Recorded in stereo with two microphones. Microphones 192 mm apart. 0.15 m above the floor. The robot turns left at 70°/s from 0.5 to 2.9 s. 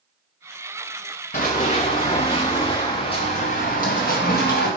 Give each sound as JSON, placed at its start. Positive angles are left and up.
{"t": 1.3, "sound": "running footsteps", "side_deg": 45, "distance_m": 0.9}